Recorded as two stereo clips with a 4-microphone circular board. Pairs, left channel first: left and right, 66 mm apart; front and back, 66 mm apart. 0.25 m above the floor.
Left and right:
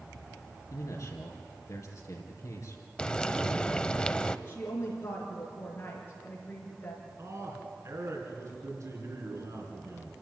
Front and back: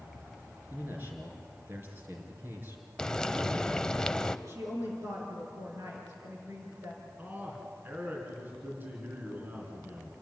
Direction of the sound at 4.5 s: 140° left.